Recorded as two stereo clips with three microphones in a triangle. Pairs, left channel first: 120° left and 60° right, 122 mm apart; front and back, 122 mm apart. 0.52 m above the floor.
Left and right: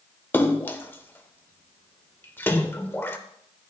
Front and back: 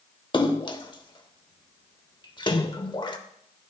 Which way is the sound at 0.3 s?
45° left.